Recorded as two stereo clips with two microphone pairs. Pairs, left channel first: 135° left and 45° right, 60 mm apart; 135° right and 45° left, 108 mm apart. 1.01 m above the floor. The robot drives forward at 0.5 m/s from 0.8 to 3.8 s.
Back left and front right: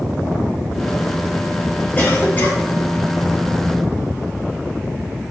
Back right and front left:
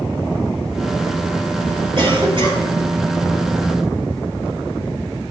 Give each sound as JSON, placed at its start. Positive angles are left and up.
{"t": 2.0, "sound": "a cough", "azimuth_deg": 75, "distance_m": 3.5}